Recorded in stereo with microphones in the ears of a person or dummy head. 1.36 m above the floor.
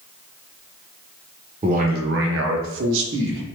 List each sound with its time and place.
1.6 s a man speaking: 30° right (ahead or behind), 0.7 m; by 3.4 s 65° right (ahead or behind), 1.2 m